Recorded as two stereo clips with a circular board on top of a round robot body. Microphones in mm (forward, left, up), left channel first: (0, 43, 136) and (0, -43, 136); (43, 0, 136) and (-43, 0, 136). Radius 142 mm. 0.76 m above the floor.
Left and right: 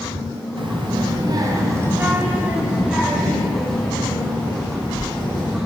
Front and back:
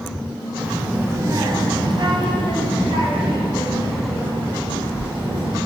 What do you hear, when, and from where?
0.6 s a child speaking: 100° right, 1.0 m; by 5.6 s 170° left, 3 m